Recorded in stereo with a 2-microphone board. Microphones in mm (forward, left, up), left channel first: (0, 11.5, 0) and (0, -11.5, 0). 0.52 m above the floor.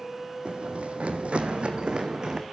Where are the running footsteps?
60° right (ahead or behind), 1.6 m; by 2.4 s 35° right (ahead or behind), 2.5 m.